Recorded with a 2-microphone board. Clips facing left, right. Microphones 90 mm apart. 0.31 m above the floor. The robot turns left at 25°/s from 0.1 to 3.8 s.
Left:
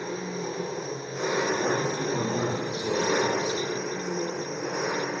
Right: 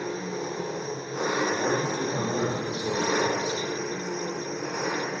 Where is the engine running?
95° right, 0.9 m; by 5.2 s 175° left, 0.9 m.